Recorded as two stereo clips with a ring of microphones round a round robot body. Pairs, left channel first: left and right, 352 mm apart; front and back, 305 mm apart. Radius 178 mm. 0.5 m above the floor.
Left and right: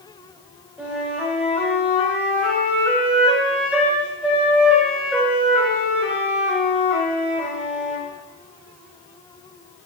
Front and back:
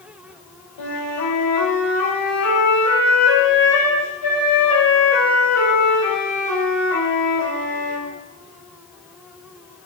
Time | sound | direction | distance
0.8 | a flute | 5° right | 6 m